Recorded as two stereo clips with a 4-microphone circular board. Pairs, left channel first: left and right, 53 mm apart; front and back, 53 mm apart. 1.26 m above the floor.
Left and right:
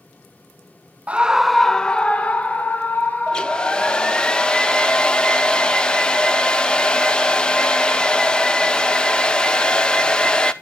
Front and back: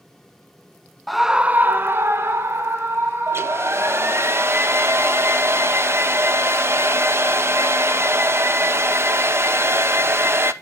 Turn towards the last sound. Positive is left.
turn(degrees=160)